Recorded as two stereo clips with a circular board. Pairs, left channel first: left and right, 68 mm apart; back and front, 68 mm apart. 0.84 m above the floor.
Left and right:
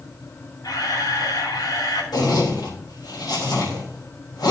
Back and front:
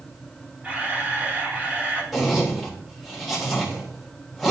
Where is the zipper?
90° left, 3 m.